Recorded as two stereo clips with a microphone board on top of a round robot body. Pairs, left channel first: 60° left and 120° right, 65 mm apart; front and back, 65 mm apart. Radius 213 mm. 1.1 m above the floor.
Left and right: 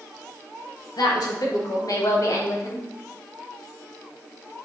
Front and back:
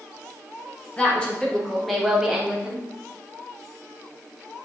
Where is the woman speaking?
75° left, 1.8 m; by 2.9 s 105° left, 1.6 m.